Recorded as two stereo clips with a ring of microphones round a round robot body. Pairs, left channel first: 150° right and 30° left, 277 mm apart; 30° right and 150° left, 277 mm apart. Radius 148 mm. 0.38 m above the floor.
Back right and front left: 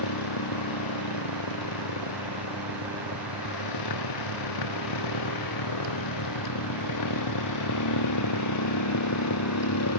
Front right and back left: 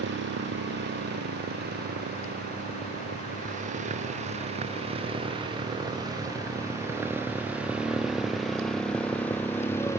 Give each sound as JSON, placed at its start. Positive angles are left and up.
{"t": 0.0, "sound": "a motorcycle", "azimuth_deg": -155}